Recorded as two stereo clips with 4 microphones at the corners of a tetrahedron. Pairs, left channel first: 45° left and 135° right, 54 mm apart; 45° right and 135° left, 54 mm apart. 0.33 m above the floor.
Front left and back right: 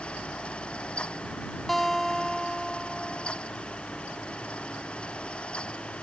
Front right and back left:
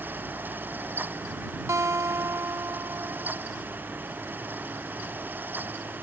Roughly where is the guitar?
Behind left.